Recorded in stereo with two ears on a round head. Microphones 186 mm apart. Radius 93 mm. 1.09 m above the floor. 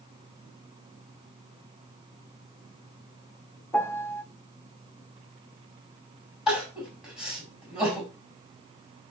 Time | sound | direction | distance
3.7 | a piano | 10° left (ahead or behind) | 0.7 m
6.5 | crying | 5° right (ahead or behind) | 6.5 m